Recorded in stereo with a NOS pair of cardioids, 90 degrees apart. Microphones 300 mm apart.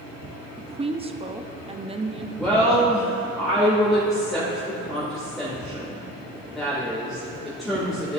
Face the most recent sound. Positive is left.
turn(degrees=0)